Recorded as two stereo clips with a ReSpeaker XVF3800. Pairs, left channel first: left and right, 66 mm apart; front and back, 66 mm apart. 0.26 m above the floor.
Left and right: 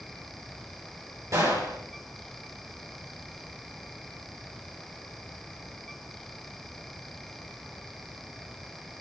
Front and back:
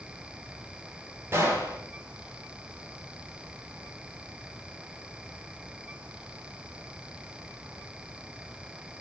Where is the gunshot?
125° right, 7.5 m.